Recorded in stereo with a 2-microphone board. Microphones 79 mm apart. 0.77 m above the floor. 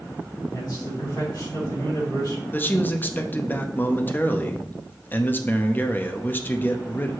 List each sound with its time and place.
0.5 s a man speaking: 65° left (ahead or behind), 3.5 m
2.5 s a man speaking: 25° left (ahead or behind), 0.7 m